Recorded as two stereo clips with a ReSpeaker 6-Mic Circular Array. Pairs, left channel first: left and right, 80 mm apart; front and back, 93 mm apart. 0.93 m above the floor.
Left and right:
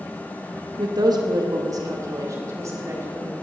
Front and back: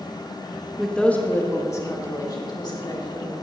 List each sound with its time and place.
0.8 s a woman speaking: 90° right, 1.4 m; by 3.4 s 35° right, 3.5 m